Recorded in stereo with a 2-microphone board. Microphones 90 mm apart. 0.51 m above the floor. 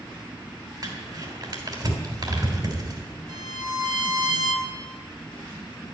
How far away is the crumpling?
About 3 m.